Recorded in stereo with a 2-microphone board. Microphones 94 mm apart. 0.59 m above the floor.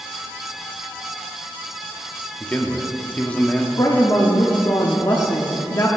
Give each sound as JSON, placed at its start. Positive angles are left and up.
{"t": 2.4, "sound": "a man speaking", "side_deg": 15, "distance_m": 0.9}
{"t": 3.8, "sound": "a woman speaking", "side_deg": 35, "distance_m": 0.8}